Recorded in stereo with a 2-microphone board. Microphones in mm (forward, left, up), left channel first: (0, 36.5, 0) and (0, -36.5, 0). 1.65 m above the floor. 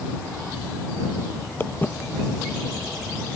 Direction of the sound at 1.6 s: 25° left (ahead or behind).